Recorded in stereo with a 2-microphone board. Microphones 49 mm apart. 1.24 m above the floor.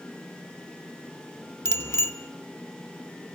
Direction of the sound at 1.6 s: 85° left.